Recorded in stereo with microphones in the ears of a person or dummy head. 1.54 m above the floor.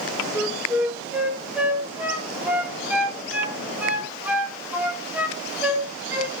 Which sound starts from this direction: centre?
A flute, at 0.3 s.